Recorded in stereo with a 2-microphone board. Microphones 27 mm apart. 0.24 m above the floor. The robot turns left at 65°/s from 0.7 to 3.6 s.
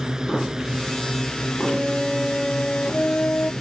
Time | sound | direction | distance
0.0 | a drone | 150° right | ?
1.6 | a flute | 130° right | ?